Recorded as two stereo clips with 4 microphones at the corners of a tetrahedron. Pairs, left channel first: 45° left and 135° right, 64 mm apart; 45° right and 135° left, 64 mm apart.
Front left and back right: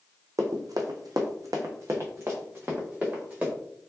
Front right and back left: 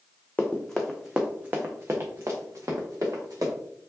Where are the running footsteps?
110° right, 0.8 m; by 3.5 s 160° left, 2.0 m.